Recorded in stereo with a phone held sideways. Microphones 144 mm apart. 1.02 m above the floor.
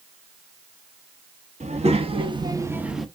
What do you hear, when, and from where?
1.6 s a child speaking: 50° right (ahead or behind), 1.2 m; by 3.1 s centre (ahead or behind), 0.7 m